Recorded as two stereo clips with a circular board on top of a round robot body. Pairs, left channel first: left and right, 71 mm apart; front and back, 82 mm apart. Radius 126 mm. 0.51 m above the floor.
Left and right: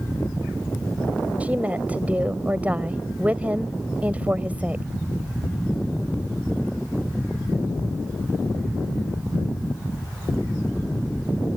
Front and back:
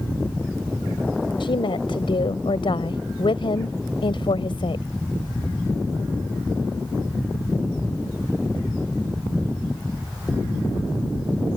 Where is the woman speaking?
20° right.